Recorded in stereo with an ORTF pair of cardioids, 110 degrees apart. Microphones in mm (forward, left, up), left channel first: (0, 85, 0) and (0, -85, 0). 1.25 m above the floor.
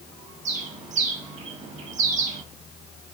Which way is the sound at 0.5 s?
45° right.